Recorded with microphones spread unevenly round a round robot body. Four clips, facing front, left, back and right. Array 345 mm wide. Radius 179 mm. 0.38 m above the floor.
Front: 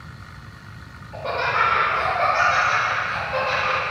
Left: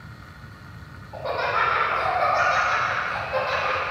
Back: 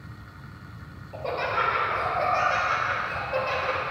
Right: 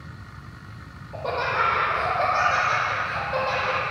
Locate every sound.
1.1 s laughter: 135° right, 1.4 m